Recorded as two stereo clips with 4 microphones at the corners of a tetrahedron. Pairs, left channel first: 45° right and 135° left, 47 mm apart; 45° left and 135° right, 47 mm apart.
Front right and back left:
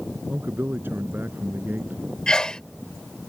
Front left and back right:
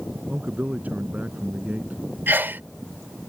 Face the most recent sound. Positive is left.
turn(degrees=-115)